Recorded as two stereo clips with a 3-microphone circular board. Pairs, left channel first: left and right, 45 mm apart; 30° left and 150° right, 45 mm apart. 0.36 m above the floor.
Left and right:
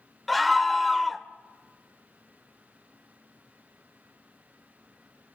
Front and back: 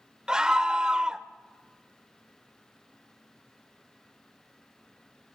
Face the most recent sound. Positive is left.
turn(degrees=180)